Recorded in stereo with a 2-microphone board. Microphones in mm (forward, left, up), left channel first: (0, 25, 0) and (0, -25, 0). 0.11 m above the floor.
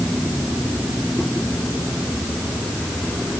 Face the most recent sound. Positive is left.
No sound to turn to.